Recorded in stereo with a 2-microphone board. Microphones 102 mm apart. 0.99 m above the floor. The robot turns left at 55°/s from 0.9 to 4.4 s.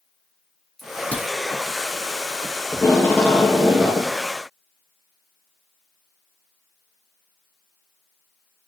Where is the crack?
Centre (ahead or behind), 3 m; by 1.3 s 25° left (ahead or behind), 3 m.